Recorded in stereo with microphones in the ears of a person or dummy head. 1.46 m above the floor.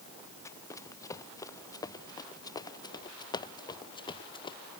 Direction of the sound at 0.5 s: 15° left (ahead or behind).